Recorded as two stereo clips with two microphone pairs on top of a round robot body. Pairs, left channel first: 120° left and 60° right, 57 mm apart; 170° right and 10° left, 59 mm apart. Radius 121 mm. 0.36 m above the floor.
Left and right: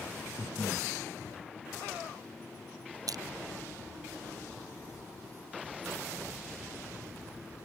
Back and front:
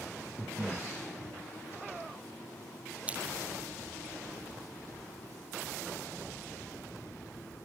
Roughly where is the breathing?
Ahead right.